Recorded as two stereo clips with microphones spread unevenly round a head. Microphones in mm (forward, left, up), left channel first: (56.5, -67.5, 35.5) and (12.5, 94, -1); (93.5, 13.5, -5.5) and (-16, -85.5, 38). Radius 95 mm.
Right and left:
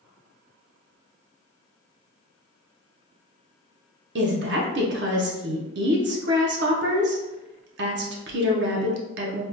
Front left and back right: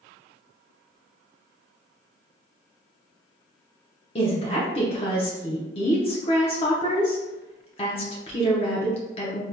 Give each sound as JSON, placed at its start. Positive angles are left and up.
{"t": 4.2, "sound": "a woman speaking", "azimuth_deg": 110, "distance_m": 0.7}